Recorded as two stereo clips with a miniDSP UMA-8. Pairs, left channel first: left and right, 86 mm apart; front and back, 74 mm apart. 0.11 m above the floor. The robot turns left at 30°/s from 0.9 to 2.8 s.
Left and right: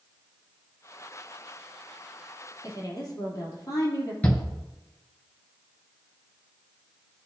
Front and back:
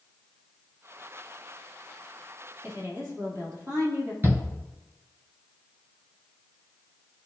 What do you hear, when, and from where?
2.6 s a woman speaking: 135° left, 3 m; by 4.1 s 130° left, 3 m
4.2 s a shout: 155° left, 1.3 m